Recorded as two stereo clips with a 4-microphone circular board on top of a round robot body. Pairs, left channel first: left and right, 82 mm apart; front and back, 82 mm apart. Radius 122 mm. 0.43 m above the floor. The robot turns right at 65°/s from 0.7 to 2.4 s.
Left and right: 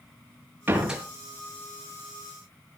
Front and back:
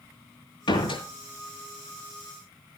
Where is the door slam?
20° right, 5.5 m; by 1.0 s straight ahead, 5.5 m.